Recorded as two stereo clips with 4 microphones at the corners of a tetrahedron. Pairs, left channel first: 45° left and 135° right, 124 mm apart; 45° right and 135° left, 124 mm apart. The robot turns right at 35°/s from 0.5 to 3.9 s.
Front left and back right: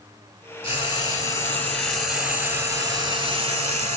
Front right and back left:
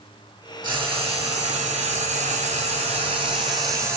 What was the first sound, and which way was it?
Frying, 85° left.